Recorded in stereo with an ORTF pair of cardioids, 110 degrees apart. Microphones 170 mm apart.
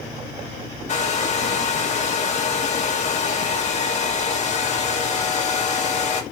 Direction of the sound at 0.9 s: 45° left.